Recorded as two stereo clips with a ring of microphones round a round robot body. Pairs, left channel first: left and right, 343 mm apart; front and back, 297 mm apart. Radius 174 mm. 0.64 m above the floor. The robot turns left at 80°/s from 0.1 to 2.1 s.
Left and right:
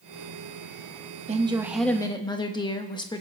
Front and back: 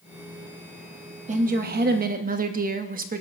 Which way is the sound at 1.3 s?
140° right.